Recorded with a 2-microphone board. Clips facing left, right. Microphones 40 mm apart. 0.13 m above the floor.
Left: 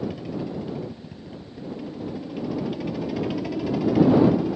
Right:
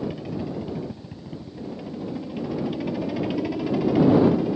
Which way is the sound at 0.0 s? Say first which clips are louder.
Even; 10° right (ahead or behind).